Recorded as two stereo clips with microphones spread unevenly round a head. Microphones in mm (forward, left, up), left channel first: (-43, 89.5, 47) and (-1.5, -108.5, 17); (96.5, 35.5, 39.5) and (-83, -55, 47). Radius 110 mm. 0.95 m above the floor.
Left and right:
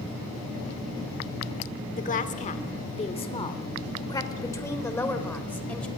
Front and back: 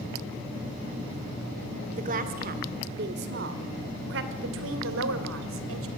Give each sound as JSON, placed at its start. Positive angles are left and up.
{"t": 2.0, "sound": "a woman speaking", "azimuth_deg": 155, "distance_m": 2.5}